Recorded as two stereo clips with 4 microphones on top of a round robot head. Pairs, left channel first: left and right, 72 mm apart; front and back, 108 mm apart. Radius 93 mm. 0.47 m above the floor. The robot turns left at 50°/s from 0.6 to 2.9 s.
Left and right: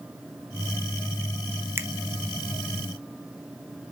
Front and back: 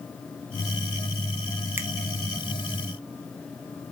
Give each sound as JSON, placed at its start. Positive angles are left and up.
{"t": 1.8, "sound": "a finger snap", "azimuth_deg": -125, "distance_m": 0.5}